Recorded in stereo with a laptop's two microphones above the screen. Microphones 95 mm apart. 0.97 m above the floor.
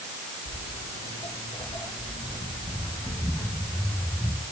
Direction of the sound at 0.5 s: 70° left (ahead or behind).